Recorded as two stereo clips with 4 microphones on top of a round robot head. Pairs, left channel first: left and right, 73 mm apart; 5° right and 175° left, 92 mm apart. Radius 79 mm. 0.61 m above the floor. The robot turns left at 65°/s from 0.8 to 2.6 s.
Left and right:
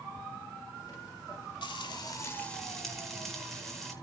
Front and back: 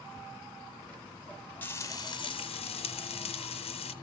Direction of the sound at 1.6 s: 65° left.